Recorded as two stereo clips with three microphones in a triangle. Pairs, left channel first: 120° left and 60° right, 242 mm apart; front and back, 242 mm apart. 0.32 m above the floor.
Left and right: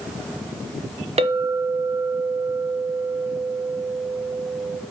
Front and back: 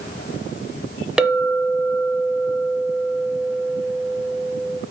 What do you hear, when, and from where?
1.2 s a clink: 95° right, 0.6 m